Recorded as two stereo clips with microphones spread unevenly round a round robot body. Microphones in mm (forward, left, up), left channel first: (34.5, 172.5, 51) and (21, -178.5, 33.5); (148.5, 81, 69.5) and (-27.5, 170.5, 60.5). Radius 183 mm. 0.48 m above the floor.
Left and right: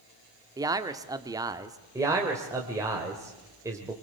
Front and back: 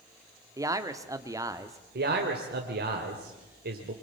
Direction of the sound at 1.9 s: 170° right.